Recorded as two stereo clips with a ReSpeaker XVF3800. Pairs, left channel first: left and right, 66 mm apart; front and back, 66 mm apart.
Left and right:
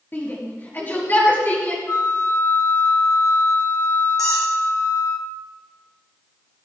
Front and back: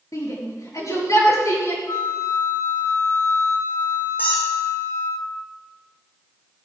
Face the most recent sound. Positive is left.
turn(degrees=65)